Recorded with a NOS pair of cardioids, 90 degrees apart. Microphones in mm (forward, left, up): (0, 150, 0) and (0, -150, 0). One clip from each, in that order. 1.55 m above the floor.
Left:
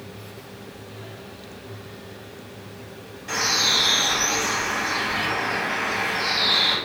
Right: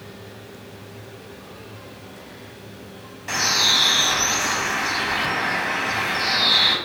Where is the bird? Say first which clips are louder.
Right 2 dB; 35° right, 0.9 m.